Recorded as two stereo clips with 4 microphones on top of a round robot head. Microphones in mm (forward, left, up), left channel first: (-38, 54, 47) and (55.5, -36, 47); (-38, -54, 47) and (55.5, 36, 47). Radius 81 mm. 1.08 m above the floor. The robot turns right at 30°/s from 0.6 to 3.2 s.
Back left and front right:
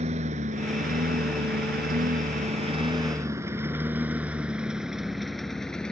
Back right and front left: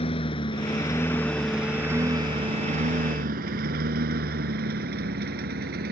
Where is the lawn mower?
90° right; by 5.9 s 50° left.